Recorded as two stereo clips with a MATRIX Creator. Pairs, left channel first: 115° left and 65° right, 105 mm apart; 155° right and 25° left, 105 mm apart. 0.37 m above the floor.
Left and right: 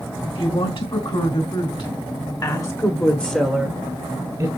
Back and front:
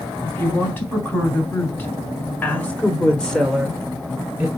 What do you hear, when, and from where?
0.2 s a woman speaking: 135° left, 3.5 m; by 4.5 s 50° right, 1.6 m